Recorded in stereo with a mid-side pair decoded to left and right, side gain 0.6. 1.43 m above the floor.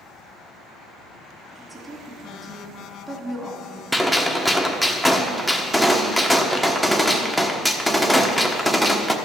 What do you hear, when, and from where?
1.6 s a woman speaking: 15° right, 2.5 m
3.9 s a gunshot: 5° right, 1.2 m